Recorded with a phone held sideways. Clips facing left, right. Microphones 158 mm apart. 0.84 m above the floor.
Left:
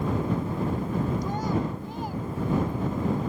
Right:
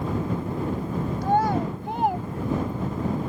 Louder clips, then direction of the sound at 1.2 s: Right 5 dB; 75° right (ahead or behind).